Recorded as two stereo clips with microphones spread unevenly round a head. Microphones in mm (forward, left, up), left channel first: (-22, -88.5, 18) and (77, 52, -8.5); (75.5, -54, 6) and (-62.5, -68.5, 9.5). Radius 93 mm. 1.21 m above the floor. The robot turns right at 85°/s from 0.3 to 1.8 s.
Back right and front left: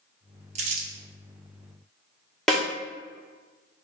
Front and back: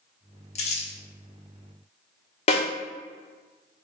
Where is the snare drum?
35° right, 1.2 m.